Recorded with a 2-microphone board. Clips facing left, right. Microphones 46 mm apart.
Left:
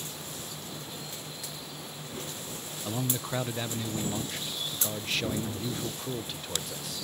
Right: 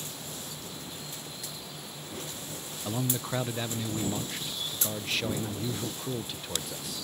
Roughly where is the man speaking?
Centre.